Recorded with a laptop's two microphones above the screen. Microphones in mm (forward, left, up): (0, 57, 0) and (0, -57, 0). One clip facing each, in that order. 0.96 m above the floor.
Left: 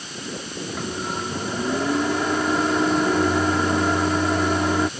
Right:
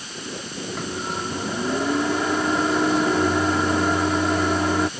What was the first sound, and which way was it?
A microwave, centre (ahead or behind).